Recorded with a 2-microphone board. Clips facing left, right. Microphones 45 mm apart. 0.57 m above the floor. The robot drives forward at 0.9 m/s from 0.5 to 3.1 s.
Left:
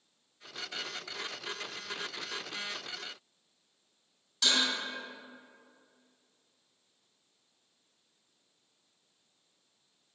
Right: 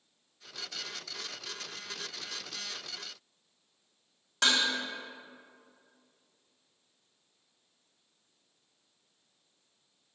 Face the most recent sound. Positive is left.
turn(degrees=-80)